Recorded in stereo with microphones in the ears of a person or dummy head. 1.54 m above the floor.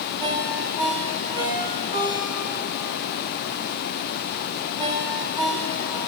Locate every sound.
0.2 s a ringtone: 15° right (ahead or behind), 0.9 m